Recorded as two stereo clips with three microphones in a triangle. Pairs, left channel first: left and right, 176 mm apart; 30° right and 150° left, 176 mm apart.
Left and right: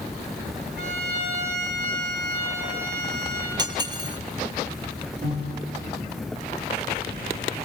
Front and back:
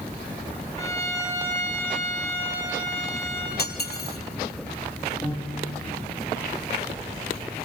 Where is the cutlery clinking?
25° right, 1.8 m.